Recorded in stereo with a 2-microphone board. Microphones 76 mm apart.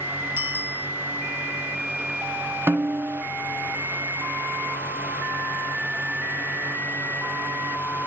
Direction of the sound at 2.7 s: 30° right (ahead or behind).